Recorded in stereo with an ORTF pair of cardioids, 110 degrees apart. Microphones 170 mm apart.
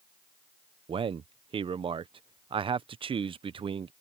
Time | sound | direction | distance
0.9 | a man speaking | 30° right | ?